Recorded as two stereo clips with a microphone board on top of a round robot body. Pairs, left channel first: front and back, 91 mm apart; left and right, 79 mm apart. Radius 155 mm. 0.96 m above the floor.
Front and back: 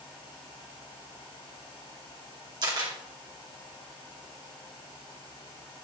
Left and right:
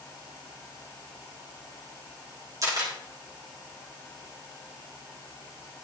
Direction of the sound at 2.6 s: 135° right.